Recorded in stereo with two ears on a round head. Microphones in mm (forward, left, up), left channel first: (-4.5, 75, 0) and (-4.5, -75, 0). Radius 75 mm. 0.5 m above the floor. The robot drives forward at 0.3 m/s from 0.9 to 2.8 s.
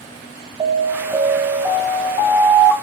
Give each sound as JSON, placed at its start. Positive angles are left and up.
{"t": 0.6, "sound": "an alarm", "side_deg": -20, "distance_m": 3.0}